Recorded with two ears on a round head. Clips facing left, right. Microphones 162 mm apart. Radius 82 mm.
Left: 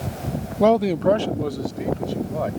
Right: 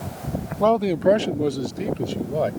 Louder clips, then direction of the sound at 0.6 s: Left 1 dB; 20° left (ahead or behind).